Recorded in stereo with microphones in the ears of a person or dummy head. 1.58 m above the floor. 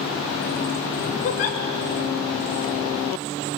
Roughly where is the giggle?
Left.